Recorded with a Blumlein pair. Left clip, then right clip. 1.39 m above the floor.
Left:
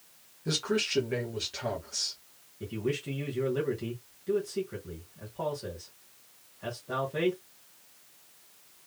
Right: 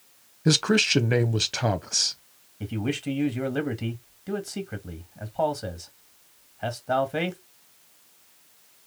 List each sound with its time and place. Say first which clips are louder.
0.5 s a man speaking: right 8 dB; 40° right, 1.0 m
2.6 s a man speaking: right 2 dB; 60° right, 1.9 m